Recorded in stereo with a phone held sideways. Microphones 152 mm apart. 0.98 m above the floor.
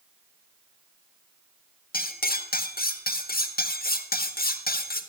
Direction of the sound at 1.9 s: 80° left.